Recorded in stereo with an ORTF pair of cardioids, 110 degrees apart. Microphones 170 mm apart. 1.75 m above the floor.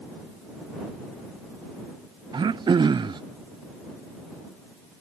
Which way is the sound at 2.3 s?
25° right.